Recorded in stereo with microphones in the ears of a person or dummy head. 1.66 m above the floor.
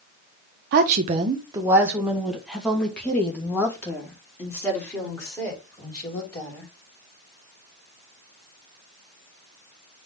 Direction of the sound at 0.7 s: 60° right (ahead or behind).